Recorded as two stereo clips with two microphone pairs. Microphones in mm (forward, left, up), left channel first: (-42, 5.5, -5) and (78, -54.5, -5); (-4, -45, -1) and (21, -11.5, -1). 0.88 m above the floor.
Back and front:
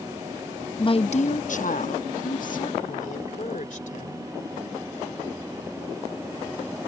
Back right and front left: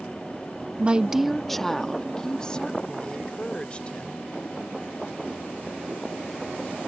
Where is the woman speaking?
100° left; by 4.3 s 170° left.